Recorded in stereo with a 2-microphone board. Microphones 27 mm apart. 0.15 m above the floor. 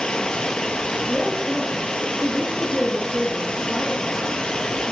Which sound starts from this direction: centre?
A man speaking, at 1.1 s.